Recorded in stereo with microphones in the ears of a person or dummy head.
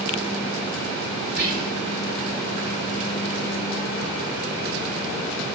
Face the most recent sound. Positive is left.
turn(degrees=-60)  # may be behind; listen again after turning